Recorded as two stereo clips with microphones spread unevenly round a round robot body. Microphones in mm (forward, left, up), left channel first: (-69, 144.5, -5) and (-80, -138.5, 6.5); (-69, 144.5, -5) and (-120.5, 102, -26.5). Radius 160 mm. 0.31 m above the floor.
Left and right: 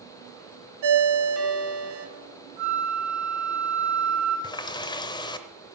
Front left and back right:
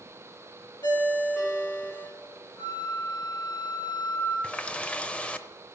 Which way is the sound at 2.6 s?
5° left.